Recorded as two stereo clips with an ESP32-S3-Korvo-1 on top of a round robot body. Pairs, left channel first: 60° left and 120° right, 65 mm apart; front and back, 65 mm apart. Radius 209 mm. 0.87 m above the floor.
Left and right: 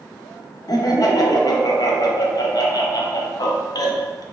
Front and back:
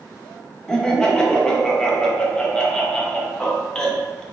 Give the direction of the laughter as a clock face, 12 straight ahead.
9 o'clock.